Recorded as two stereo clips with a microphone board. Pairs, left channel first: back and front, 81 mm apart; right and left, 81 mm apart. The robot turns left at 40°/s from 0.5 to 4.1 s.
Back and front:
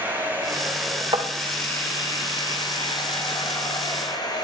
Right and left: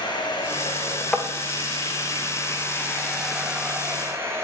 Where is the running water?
70° right, 7 m; by 4.4 s 150° left, 7 m.